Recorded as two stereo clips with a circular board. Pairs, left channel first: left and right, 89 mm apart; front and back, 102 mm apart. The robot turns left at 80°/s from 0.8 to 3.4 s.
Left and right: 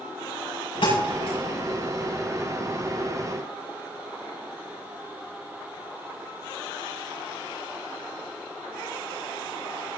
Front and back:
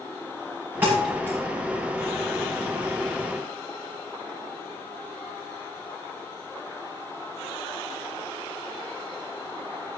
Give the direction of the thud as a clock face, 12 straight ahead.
8 o'clock.